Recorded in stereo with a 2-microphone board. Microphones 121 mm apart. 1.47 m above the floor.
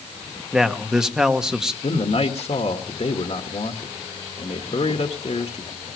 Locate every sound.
0.5 s a man speaking: 5° right (ahead or behind), 1.3 m
1.8 s a man speaking: 60° left (ahead or behind), 1.7 m